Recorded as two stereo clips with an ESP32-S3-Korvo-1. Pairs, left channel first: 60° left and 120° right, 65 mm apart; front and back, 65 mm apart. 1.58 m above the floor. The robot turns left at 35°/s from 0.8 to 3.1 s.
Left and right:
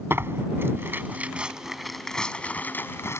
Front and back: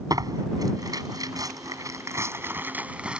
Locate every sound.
0.1 s tearing paper: 175° right; by 3.2 s 105° left